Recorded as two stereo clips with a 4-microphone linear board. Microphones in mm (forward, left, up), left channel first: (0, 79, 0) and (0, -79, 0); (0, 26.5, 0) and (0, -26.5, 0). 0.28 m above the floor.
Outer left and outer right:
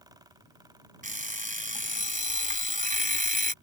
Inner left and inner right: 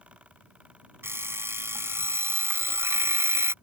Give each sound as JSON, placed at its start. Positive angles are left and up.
{"t": 1.0, "sound": "an alarm clock", "side_deg": -65}